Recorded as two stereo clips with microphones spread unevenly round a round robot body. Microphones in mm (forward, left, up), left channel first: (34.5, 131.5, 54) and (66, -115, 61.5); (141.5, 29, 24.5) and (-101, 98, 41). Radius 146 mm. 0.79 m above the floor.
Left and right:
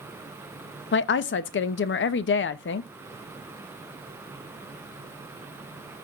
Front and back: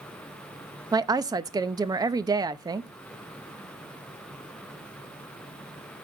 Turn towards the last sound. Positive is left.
turn(degrees=90)